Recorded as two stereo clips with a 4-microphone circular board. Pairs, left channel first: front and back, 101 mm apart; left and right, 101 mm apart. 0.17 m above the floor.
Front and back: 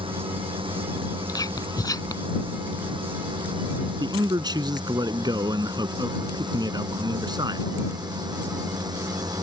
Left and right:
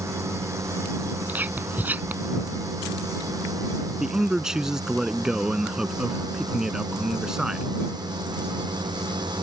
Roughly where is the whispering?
Ahead right.